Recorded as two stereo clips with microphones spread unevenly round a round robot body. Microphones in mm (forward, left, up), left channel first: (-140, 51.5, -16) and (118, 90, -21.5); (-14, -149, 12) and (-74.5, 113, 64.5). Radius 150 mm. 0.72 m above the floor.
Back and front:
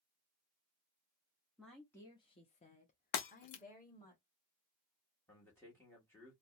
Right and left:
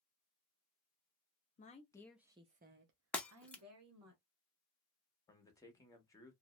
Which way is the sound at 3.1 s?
165° right.